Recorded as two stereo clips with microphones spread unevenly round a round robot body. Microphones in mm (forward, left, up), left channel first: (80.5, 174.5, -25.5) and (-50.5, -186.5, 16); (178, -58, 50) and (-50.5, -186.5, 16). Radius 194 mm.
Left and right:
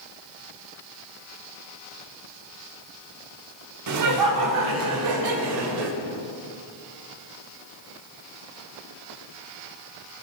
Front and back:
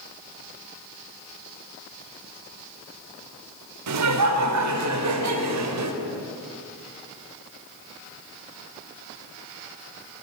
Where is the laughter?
160° right, 3 m; by 5.9 s 145° right, 3.5 m.